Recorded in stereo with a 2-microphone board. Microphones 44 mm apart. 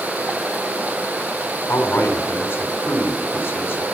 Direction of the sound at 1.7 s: 65° left (ahead or behind).